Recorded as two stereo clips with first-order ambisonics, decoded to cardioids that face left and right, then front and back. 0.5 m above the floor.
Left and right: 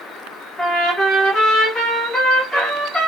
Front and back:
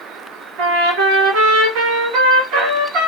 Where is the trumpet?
Straight behind, 2.5 m.